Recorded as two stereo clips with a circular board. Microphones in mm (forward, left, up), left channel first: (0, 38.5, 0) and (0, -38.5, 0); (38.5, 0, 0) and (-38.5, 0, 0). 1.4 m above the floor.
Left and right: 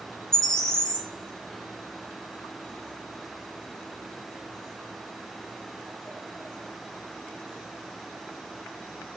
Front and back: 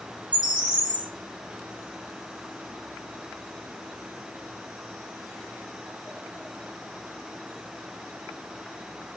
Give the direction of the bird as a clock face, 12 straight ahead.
6 o'clock.